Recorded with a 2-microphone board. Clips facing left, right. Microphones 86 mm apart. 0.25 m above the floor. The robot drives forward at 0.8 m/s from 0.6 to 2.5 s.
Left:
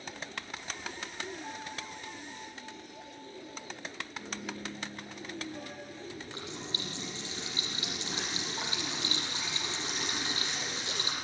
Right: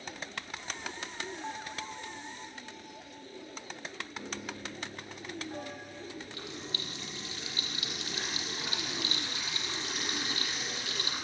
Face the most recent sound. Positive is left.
turn(degrees=30)  # may be behind; listen again after turning